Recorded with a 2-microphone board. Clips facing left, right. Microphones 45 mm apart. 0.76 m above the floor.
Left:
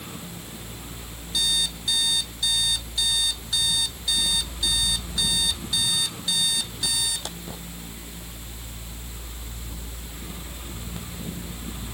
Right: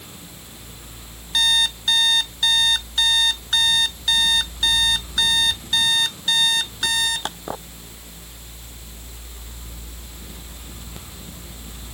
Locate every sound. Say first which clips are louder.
1.3 s an alarm clock: right 7 dB; 55° right (ahead or behind)